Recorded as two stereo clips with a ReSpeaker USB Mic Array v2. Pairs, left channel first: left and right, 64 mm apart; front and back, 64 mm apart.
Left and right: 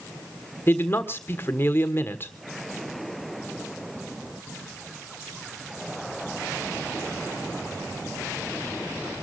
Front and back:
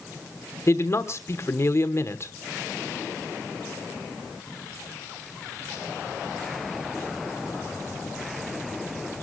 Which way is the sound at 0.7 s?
40° left.